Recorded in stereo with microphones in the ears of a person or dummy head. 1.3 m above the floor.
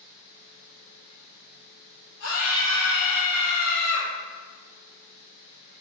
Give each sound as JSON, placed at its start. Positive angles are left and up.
{"t": 2.2, "sound": "a scream", "side_deg": 70, "distance_m": 1.1}